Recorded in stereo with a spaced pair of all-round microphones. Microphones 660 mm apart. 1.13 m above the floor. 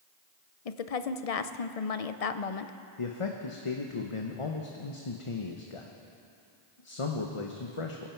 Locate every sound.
0.7 s a woman speaking: 60° left (ahead or behind), 0.7 m
3.0 s a man speaking: 50° left (ahead or behind), 1.0 m